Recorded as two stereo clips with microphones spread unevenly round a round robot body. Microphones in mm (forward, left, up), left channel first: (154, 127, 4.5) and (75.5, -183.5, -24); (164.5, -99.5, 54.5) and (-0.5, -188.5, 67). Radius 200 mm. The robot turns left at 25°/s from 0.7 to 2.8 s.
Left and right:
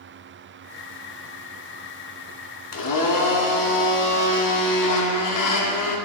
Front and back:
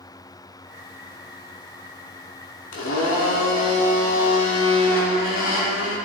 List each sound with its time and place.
2.7 s a blender: 45° left, 1.1 m; by 6.0 s 40° left, 1.1 m